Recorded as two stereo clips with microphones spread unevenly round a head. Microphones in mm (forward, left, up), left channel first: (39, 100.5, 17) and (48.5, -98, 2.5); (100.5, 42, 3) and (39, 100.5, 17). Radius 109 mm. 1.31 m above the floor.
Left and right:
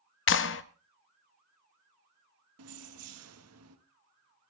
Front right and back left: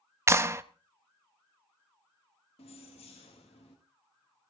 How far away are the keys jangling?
About 1.6 m.